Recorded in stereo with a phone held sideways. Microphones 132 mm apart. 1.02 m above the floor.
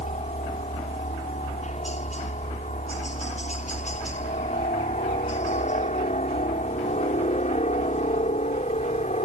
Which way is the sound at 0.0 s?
60° left (ahead or behind).